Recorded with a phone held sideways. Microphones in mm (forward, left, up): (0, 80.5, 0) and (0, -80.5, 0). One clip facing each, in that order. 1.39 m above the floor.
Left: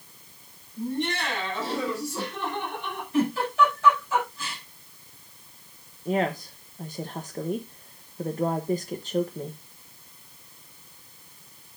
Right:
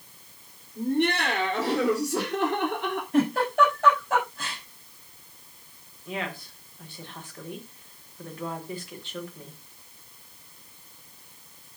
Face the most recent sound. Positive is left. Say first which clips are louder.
# left 9 dB
turn(degrees=40)  # may be behind; listen again after turning